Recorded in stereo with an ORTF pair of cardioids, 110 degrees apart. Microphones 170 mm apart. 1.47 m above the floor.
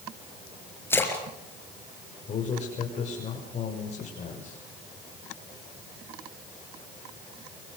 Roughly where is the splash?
Ahead.